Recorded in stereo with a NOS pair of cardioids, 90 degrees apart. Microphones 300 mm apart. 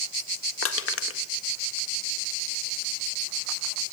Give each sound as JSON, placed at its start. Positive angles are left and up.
{"t": 0.6, "sound": "crushing", "azimuth_deg": 45, "distance_m": 1.7}